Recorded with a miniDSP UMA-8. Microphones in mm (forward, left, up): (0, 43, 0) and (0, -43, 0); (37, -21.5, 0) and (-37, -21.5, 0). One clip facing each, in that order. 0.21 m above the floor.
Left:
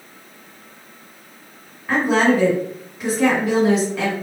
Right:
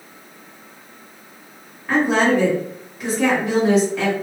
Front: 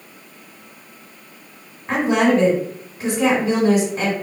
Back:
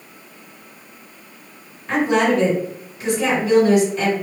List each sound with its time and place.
1.9 s a woman speaking: 5° left, 1.9 m